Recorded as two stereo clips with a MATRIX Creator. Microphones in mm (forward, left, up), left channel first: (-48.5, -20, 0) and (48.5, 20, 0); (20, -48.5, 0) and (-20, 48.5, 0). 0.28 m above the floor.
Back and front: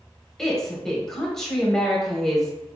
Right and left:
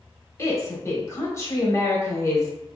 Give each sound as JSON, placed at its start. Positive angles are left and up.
{"t": 0.4, "sound": "a woman speaking", "azimuth_deg": -75, "distance_m": 1.0}